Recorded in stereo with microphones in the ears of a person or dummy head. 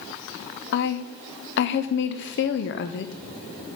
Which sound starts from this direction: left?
A woman speaking, at 0.7 s.